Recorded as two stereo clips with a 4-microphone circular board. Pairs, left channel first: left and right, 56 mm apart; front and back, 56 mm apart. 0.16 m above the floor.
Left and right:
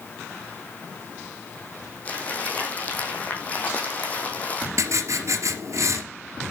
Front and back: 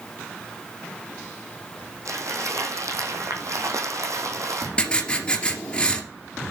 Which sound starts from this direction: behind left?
Crumpling, at 2.0 s.